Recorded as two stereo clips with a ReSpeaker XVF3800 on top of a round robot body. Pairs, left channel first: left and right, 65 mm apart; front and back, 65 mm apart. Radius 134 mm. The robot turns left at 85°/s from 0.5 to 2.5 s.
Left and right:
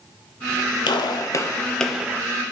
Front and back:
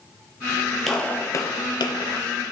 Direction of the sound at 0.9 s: 90° left.